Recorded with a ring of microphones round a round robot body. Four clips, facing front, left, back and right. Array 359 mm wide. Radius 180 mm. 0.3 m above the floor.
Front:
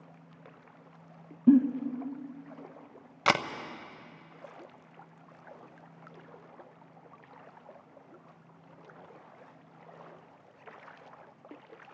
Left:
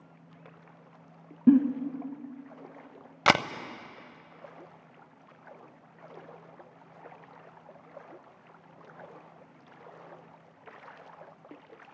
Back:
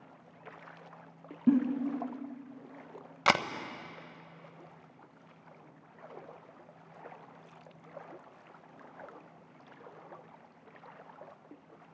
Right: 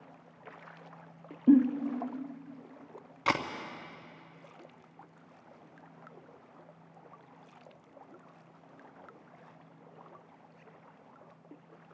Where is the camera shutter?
85° left, 0.5 m.